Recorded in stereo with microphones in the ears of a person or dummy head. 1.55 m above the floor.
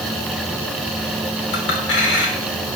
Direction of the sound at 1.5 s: 70° left (ahead or behind).